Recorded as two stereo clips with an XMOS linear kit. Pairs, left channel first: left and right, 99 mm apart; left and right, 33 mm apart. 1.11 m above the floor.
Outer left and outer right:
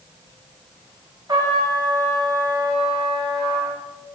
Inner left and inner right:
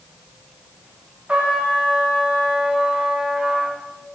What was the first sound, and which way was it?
A trumpet, 45° right (ahead or behind).